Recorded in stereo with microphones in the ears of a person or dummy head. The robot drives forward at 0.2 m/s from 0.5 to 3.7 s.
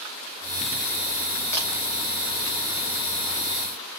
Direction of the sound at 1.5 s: 15° left (ahead or behind).